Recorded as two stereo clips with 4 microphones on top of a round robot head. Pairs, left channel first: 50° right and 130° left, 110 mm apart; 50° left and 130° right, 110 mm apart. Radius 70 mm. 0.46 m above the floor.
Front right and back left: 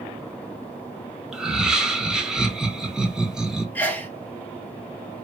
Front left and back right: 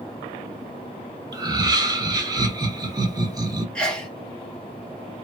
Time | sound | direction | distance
1.3 | laughter | 150° right | 0.9 m
3.8 | a sneeze | 10° right | 1.1 m